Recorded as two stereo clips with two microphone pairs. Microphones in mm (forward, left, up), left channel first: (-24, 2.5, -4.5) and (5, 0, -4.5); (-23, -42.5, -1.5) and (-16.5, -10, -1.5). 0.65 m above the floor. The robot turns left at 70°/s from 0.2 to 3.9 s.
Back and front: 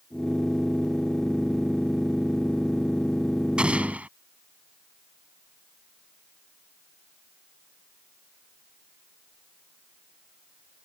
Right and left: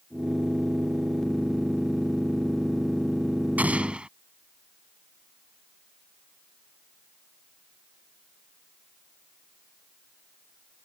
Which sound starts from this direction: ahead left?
An explosion, at 3.6 s.